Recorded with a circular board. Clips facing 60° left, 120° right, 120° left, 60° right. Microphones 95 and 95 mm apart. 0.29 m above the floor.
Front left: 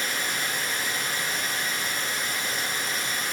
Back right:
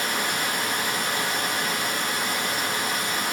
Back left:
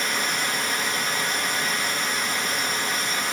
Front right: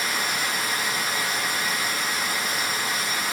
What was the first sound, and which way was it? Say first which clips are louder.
Running water: back right 4 dB, back left 1 dB; 145° right.